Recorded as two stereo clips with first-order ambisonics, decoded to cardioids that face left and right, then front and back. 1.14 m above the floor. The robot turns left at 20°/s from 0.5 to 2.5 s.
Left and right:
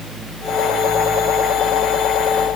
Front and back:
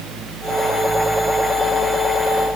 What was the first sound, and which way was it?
Only background noise.